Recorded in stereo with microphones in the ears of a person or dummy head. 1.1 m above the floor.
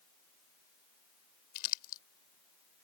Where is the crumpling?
50° left (ahead or behind).